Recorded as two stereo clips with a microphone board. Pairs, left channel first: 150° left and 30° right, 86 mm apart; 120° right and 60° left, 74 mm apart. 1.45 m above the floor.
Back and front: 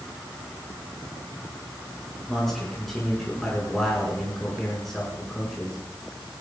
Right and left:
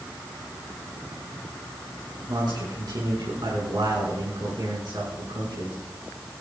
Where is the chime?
I don't hear a chime.